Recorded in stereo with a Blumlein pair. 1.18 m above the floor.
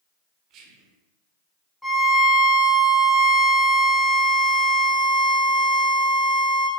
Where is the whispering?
35° right, 0.7 m.